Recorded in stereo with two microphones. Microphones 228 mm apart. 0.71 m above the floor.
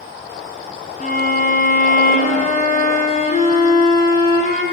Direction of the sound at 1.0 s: 35° left (ahead or behind).